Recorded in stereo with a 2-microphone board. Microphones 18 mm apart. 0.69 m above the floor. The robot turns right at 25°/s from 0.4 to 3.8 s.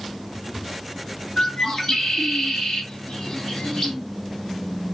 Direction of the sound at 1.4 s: 50° left.